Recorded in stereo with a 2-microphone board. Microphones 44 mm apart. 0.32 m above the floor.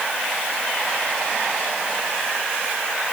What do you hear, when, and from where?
Only background noise.